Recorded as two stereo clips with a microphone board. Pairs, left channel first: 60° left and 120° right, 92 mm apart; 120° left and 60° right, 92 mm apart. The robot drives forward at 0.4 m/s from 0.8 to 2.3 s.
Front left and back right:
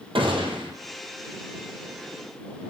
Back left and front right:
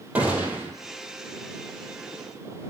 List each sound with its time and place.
0.1 s a gunshot: 135° right, 2.0 m